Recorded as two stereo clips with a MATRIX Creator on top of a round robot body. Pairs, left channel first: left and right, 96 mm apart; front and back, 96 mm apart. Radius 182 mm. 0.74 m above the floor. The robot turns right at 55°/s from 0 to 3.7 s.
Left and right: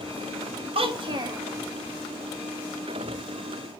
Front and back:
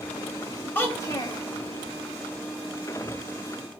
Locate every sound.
0.8 s a child speaking: 75° right, 1.0 m; by 1.4 s 35° right, 1.0 m